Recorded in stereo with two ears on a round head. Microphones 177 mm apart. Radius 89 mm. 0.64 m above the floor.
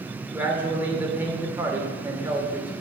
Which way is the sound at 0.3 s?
10° right (ahead or behind).